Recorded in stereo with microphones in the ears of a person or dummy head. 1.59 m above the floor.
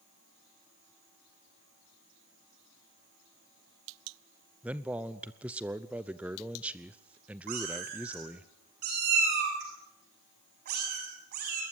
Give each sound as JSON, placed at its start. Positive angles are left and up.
{"t": 4.6, "sound": "a man speaking", "side_deg": -5, "distance_m": 0.8}
{"t": 7.5, "sound": "a cat meowing", "side_deg": -45, "distance_m": 6.5}